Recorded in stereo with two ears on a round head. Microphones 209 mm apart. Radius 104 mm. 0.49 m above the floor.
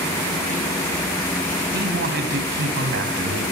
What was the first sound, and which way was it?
A man speaking, 50° right (ahead or behind).